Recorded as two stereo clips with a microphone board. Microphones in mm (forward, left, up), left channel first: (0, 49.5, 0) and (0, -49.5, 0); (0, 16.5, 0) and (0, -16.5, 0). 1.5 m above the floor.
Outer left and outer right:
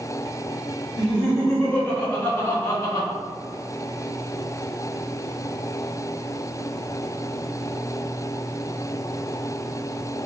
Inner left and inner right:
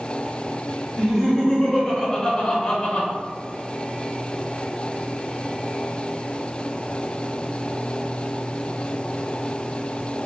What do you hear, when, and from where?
1.0 s laughter: centre (ahead or behind), 1.7 m; by 3.1 s 35° left (ahead or behind), 1.0 m